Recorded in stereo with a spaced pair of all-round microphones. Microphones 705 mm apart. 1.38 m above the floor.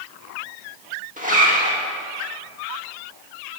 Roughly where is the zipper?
Centre.